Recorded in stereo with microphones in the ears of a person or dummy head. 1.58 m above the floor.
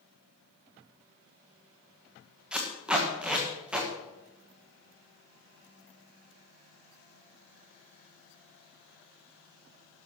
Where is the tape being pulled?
5° right (ahead or behind), 1.5 m.